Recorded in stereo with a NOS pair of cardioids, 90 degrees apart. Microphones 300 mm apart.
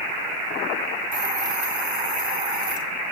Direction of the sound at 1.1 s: 25° right.